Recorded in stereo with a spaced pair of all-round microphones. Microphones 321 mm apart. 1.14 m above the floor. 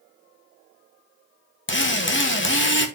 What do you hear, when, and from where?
1.7 s a drill: 40° left (ahead or behind), 1.0 m